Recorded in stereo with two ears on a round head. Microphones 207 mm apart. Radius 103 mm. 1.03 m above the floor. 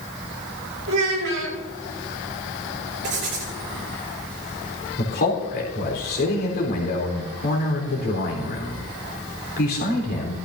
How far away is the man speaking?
About 3.5 m.